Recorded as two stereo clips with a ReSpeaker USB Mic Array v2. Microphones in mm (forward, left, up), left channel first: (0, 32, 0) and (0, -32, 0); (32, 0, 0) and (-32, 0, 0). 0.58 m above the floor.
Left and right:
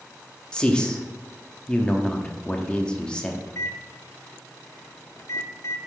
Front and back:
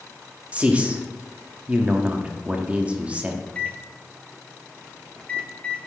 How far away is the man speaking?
About 0.8 m.